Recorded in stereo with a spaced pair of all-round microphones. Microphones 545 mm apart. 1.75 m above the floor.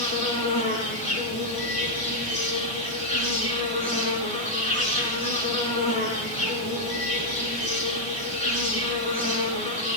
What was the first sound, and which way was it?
An insect, 10° left (ahead or behind).